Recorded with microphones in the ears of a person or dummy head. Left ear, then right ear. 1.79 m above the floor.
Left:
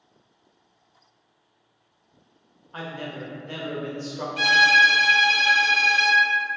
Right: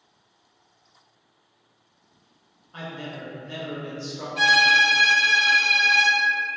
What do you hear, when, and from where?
2.7 s a man speaking: 20° left (ahead or behind), 0.5 m
4.4 s a violin: 10° left (ahead or behind), 0.8 m